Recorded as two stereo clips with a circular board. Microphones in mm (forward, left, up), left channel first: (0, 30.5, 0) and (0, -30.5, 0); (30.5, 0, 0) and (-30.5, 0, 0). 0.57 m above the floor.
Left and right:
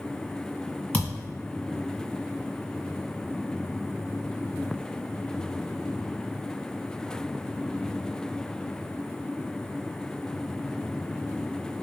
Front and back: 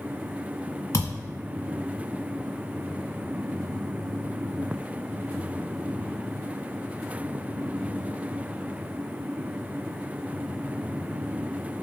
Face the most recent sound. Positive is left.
turn(degrees=30)